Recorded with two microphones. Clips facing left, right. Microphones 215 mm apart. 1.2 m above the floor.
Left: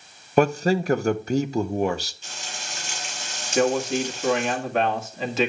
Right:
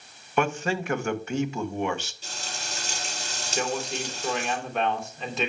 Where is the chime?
I don't hear a chime.